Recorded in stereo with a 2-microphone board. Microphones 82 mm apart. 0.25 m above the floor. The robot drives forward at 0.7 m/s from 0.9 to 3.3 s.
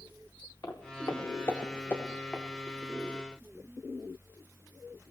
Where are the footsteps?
50° left (ahead or behind), 2.5 m; by 2.4 s 10° left (ahead or behind), 2.5 m.